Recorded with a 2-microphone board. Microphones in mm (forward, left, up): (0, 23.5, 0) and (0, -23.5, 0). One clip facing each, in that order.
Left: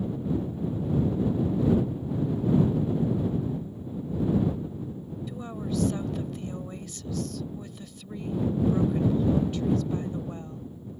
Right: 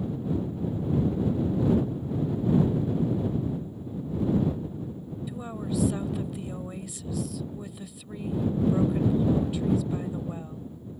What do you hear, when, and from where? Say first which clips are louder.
5.3 s a woman speaking: even; 5° right (ahead or behind)